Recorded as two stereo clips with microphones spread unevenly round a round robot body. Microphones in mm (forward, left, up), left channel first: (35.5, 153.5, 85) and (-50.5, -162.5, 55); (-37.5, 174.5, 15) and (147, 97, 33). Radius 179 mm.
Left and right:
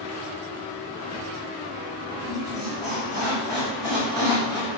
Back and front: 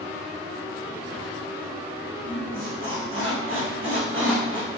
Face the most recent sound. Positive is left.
turn(degrees=-15)